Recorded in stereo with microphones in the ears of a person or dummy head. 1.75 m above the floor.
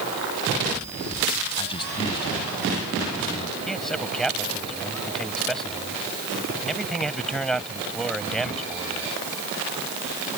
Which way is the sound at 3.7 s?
Centre (ahead or behind).